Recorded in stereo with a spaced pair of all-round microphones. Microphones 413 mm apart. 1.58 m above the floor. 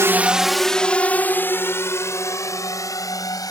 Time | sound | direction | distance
0.0 | a drone | 5° right (ahead or behind) | ?